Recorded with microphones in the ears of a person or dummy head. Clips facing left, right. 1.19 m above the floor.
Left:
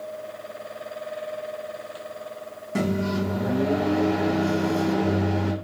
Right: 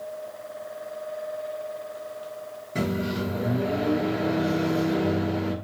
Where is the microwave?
80° left, 1.7 m.